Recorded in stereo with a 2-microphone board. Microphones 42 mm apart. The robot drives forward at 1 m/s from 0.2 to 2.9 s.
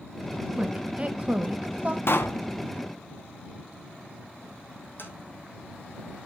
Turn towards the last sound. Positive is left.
turn(degrees=60)  # may be behind; listen again after turning